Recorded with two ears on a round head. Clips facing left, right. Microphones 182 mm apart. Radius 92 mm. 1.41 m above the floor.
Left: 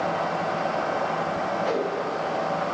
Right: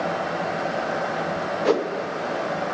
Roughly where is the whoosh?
Right.